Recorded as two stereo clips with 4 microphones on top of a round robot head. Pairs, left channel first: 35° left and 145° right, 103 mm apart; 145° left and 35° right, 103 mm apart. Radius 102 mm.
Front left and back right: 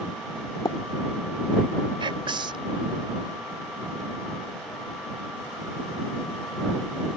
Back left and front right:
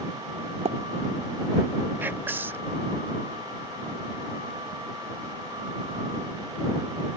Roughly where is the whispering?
Right.